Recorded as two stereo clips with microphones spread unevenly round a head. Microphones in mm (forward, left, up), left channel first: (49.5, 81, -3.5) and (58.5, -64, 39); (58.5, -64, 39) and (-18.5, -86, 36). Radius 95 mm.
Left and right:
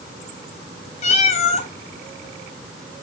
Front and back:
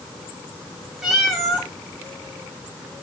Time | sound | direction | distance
1.0 | a cat meowing | 110° left | 1.3 m